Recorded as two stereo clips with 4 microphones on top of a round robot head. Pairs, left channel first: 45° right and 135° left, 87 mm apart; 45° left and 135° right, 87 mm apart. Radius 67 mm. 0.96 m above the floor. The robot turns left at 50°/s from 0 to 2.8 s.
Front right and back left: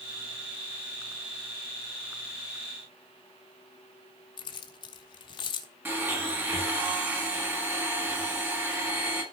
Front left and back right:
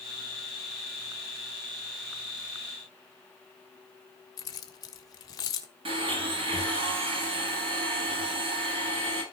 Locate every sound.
4.4 s keys jangling: 5° right, 1.4 m
5.8 s a blender: 160° right, 4.5 m